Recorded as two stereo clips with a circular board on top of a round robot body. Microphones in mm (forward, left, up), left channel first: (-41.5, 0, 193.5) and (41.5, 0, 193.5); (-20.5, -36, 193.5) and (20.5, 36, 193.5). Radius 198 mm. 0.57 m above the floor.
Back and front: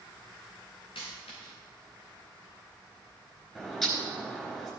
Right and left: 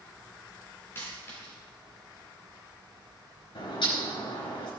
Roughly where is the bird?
Right.